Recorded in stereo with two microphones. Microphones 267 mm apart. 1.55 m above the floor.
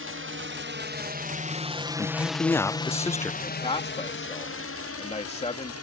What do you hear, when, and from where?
0.0 s a drone: 55° right (ahead or behind); by 5.8 s 65° left (ahead or behind)
2.0 s a man speaking: 10° left (ahead or behind)
3.4 s a man speaking: 25° left (ahead or behind)